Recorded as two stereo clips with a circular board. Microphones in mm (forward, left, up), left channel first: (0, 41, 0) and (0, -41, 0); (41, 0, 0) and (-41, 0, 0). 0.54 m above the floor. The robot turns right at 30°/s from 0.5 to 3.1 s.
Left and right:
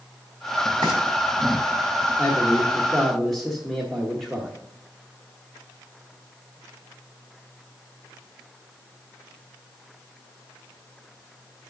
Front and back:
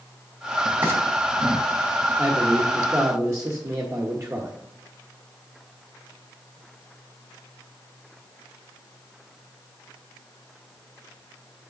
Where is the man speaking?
145° left, 1.2 m; by 4.5 s 170° left, 1.2 m.